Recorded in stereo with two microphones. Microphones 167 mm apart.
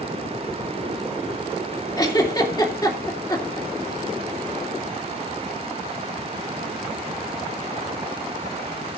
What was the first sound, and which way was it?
A giggle, 25° left (ahead or behind).